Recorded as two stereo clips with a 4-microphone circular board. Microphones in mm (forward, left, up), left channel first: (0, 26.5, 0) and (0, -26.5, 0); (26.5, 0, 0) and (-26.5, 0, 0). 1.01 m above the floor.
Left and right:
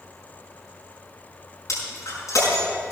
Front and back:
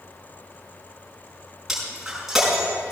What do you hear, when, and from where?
1.7 s breaking glass: 95° left, 5 m